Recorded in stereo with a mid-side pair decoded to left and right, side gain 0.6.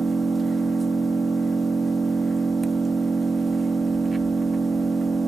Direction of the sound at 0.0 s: 15° right.